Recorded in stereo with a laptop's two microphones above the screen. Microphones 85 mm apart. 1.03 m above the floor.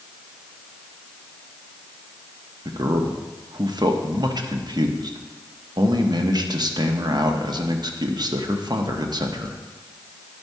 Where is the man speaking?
55° right (ahead or behind), 1.0 m.